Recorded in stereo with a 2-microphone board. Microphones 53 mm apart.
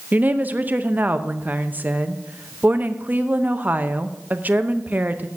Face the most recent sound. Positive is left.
turn(degrees=-35)  # may be behind; listen again after turning